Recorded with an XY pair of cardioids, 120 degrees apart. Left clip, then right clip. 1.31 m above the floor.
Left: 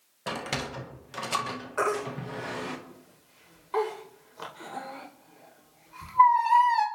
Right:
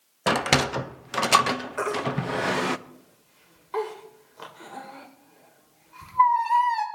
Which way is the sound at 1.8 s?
10° left.